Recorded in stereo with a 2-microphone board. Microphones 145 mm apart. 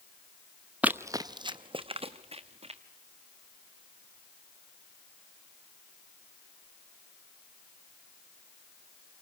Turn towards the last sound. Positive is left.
turn(degrees=-45)  # may be behind; listen again after turning